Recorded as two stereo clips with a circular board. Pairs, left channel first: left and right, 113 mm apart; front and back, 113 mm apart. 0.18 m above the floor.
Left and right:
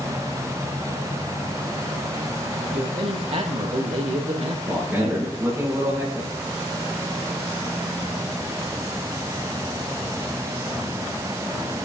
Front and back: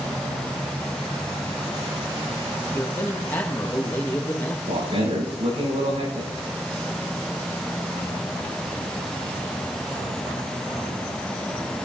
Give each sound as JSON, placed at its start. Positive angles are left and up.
{"t": 2.7, "sound": "a man speaking", "azimuth_deg": -75, "distance_m": 4.0}
{"t": 4.7, "sound": "a man speaking", "azimuth_deg": -165, "distance_m": 9.0}